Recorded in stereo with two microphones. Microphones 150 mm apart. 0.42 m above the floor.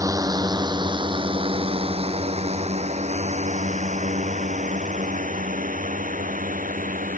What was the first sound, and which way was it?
A drone, 20° right (ahead or behind).